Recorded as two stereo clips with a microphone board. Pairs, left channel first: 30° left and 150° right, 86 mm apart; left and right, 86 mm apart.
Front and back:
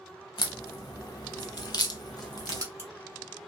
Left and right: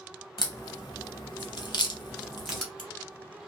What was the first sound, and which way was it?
A crack, 65° left.